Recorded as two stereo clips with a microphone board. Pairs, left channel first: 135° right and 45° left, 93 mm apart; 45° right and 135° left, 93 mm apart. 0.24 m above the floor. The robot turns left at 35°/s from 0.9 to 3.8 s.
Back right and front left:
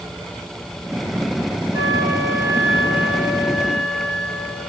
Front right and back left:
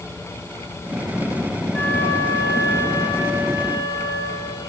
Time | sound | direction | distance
1.7 | a flute | 20° left | 1.6 m